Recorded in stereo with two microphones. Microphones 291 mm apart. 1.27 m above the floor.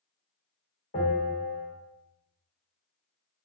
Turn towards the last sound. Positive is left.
turn(degrees=40)  # may be behind; listen again after turning